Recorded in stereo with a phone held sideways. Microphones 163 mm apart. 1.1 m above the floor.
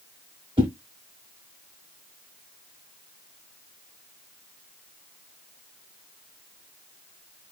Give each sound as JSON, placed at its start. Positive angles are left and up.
{"t": 0.6, "sound": "a whoosh", "side_deg": -30, "distance_m": 1.0}